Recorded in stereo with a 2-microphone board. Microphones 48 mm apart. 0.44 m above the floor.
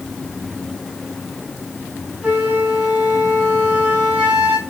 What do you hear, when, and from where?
2.2 s a flute: 20° right (ahead or behind), 2.5 m